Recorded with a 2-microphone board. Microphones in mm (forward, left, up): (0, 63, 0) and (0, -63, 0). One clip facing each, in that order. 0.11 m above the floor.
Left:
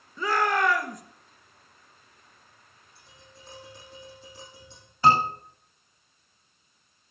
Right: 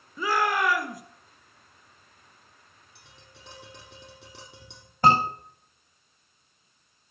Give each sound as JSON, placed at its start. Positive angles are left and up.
{"t": 0.2, "sound": "a shout", "side_deg": -5, "distance_m": 1.7}
{"t": 3.0, "sound": "tapping", "side_deg": -70, "distance_m": 5.0}
{"t": 5.0, "sound": "a scream", "side_deg": -50, "distance_m": 8.5}